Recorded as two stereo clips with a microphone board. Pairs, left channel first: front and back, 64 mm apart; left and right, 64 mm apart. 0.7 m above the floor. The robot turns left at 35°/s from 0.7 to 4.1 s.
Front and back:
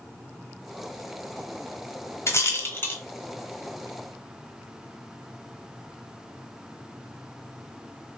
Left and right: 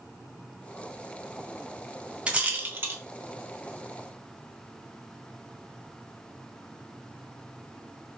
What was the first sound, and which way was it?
A rattle, 25° right.